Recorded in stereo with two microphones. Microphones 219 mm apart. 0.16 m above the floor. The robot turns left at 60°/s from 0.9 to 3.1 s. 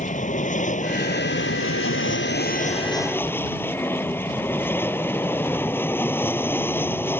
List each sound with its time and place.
0.0 s an aircraft: 140° left; by 7.2 s 10° left